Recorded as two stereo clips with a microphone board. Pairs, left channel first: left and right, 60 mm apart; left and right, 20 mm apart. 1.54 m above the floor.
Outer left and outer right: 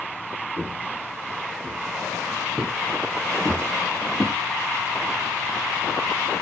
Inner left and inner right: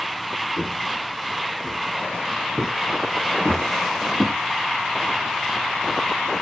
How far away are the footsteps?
About 2.5 m.